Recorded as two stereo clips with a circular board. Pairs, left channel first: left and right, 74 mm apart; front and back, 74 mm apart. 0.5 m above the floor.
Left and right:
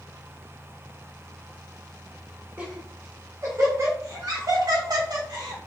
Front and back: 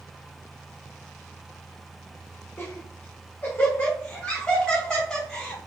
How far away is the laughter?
About 1.4 m.